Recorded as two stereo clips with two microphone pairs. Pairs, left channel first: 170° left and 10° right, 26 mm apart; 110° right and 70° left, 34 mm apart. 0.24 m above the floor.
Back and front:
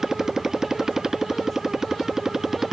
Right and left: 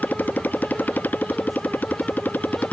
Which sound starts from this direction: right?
A motorcycle, at 0.0 s.